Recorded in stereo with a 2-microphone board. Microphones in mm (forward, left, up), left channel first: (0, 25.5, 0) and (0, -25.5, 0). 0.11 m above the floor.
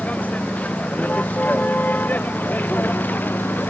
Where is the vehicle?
30° left (ahead or behind); by 3.7 s 40° left (ahead or behind).